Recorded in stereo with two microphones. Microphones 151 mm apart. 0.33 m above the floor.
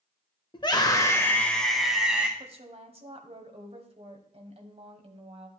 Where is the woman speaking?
40° right (ahead or behind), 1.6 m.